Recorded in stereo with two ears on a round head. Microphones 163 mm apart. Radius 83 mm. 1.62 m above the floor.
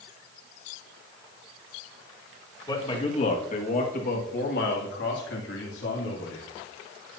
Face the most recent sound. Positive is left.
turn(degrees=85)